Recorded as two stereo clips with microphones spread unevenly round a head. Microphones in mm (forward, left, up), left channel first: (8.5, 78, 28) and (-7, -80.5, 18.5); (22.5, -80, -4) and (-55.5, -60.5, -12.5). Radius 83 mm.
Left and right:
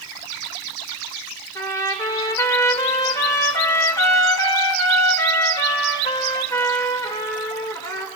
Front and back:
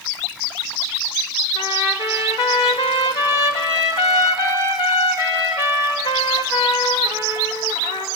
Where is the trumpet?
15° left, 1.6 m.